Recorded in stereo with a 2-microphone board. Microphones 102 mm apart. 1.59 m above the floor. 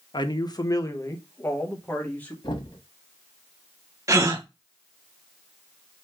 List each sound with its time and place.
0.1 s a man speaking: 45° left (ahead or behind), 0.7 m; by 2.3 s 15° left (ahead or behind), 1.5 m
2.4 s knocking: 50° left (ahead or behind), 1.6 m
4.1 s a gasp: 30° right (ahead or behind), 0.7 m